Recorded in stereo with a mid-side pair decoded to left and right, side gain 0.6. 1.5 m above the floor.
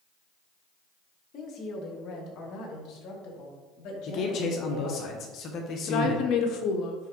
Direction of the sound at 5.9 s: 55° left.